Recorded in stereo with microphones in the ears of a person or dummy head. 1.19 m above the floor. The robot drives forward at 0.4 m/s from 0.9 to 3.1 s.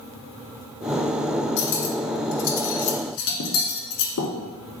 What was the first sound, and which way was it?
Cutlery clinking, 65° left (ahead or behind).